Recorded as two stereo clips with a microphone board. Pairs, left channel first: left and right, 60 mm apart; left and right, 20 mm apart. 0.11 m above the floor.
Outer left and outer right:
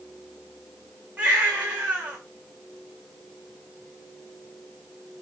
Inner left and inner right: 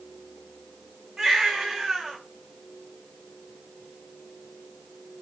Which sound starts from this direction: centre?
A baby crying, at 1.2 s.